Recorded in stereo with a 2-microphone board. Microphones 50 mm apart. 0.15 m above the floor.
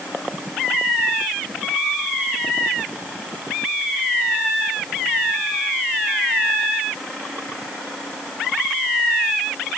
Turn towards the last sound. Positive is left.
No sound to turn to.